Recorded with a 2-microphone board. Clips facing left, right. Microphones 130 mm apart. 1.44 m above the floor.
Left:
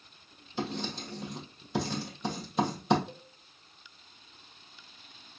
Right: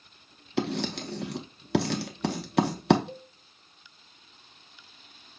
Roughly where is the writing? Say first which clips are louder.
Right 6 dB; right.